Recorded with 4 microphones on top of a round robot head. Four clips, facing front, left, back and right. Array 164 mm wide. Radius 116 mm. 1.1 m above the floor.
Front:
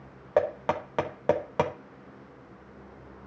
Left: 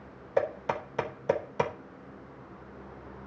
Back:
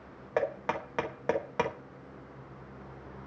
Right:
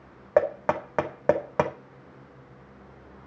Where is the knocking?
65° right, 1.8 m.